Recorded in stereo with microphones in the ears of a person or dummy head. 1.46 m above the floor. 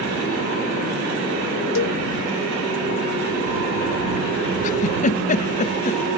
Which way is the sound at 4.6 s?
35° left (ahead or behind).